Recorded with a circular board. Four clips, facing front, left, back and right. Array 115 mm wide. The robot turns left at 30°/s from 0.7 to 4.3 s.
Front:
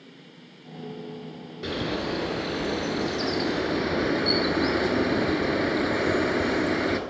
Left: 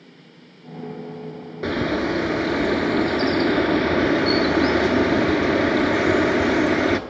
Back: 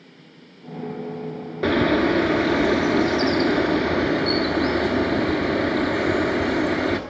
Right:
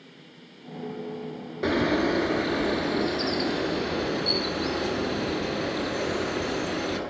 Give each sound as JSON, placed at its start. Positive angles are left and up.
{"t": 1.6, "sound": "a bird", "azimuth_deg": 180, "distance_m": 1.0}